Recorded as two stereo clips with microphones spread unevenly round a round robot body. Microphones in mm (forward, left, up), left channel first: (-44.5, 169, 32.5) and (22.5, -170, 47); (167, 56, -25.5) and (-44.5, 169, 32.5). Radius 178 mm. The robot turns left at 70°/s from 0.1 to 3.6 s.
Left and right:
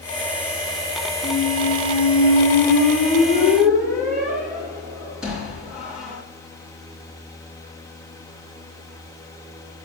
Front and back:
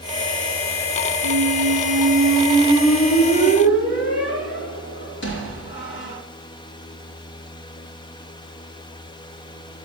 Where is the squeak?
175° left, 3 m; by 6.2 s 10° left, 3 m.